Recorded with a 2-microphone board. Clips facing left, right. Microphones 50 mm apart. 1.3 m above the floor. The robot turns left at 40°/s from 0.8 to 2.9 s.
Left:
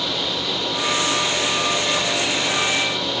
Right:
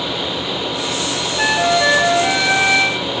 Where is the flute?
75° right; by 3.0 s 140° right.